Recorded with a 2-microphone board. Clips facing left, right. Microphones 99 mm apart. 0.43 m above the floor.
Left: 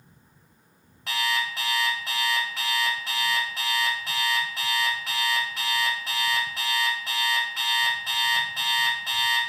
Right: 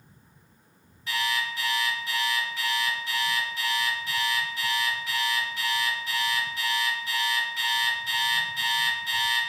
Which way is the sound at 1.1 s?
70° left (ahead or behind).